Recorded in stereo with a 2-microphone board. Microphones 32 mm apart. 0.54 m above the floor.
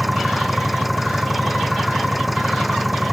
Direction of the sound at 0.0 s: 5° right (ahead or behind).